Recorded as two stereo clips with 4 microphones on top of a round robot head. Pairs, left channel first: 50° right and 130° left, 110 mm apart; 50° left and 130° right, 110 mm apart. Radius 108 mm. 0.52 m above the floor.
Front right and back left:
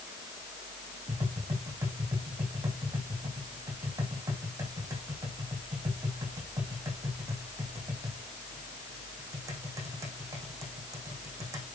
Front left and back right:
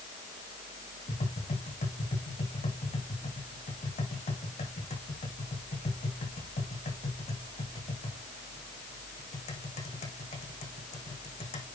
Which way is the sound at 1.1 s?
70° left.